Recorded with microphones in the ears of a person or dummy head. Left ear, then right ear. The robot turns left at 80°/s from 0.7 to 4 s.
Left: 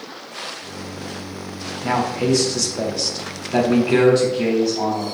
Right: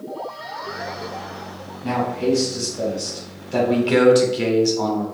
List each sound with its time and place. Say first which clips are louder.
1.8 s a man speaking: left 1 dB; 150° left, 0.8 m; by 5.0 s 25° right, 0.8 m